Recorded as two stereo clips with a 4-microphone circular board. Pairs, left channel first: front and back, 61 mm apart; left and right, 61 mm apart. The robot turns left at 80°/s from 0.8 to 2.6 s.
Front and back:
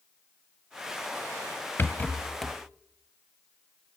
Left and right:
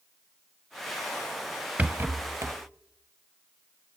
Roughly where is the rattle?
Ahead right.